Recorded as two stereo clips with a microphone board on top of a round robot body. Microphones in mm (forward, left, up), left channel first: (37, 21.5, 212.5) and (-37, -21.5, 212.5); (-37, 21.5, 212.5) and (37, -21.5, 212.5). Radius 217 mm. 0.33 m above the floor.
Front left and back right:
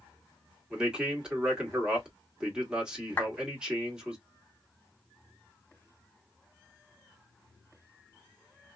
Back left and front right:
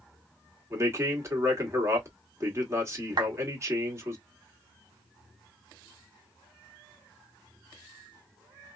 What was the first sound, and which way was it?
A man speaking, 75° right.